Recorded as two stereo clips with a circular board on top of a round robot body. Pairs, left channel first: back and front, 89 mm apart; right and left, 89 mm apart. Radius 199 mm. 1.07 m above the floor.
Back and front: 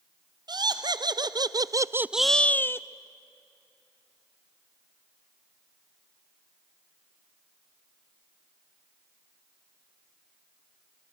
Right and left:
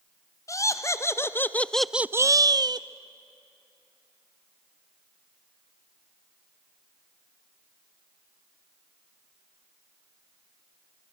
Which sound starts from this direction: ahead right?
Laughter, at 0.5 s.